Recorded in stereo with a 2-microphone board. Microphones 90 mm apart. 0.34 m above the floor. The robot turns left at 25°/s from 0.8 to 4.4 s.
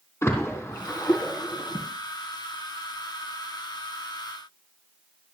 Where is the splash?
25° left (ahead or behind), 3.5 m; by 1.9 s 50° left (ahead or behind), 3.5 m.